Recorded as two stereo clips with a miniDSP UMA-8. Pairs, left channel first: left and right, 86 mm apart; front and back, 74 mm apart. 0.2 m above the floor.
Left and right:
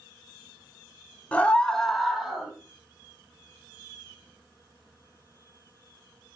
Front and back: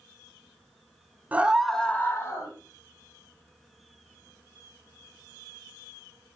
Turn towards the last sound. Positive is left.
turn(degrees=-10)